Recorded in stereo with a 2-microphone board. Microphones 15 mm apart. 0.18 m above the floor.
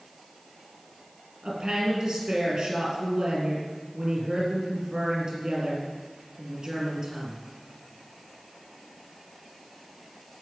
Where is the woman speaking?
40° right (ahead or behind), 4.5 m.